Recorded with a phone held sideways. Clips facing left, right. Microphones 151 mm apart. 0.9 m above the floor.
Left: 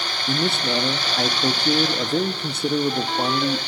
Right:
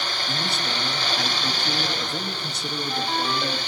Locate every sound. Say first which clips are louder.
0.3 s a man speaking: left 10 dB; 55° left (ahead or behind), 1.5 m